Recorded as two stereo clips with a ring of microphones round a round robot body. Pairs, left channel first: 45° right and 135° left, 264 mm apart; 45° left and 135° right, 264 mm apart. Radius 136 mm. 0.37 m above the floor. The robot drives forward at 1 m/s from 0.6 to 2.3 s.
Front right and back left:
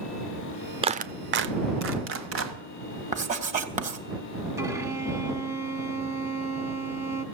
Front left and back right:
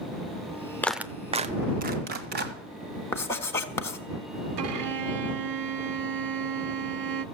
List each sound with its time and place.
0.8 s a clap: 115° left, 0.6 m; by 2.5 s 175° left, 1.7 m
3.1 s writing: 115° left, 1.4 m
4.6 s a violin: 145° right, 0.8 m